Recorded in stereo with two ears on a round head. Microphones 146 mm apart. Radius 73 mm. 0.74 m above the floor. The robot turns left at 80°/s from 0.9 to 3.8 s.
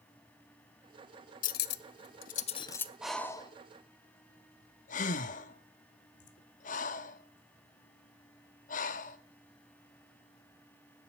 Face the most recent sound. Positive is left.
turn(degrees=50)  # may be behind; listen again after turning